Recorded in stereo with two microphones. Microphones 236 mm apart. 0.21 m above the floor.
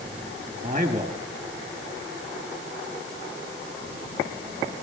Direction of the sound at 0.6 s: 35° right (ahead or behind).